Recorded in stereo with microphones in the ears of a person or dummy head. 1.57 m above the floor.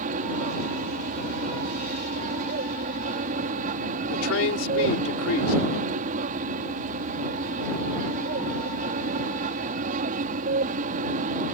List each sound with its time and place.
0.0 s an aircraft: 50° right (ahead or behind)
4.1 s a man speaking: 85° left